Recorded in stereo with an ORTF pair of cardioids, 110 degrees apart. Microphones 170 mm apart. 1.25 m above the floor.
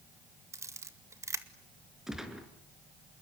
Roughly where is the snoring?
No snoring in this recording.